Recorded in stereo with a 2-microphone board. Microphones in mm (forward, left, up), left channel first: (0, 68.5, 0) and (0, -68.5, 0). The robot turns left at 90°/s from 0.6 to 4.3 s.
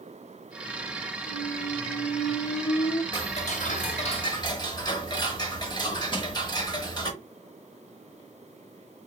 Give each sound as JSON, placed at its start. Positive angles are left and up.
{"t": 1.3, "sound": "a squeak", "azimuth_deg": -65, "distance_m": 0.7}
{"t": 3.1, "sound": "ticking", "azimuth_deg": 140, "distance_m": 0.8}
{"t": 6.1, "sound": "crushing", "side_deg": 35, "distance_m": 0.9}